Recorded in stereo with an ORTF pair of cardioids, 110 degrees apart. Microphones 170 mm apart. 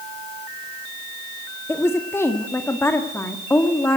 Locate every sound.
1.7 s a woman speaking: 15° left, 1.7 m